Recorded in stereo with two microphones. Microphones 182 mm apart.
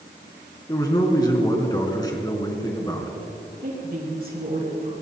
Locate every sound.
0.7 s a man speaking: 20° left (ahead or behind), 3 m
3.6 s a woman speaking: 55° right (ahead or behind), 4.5 m